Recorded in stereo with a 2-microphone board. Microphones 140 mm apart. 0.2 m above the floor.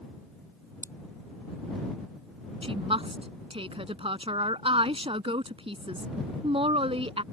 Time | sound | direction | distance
0.8 | scissors | 20° left (ahead or behind) | ?
2.6 | a woman speaking | 45° right (ahead or behind) | ?